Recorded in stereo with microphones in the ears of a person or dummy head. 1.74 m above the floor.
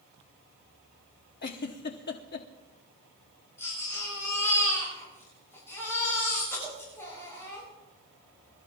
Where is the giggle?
50° left (ahead or behind), 1.0 m.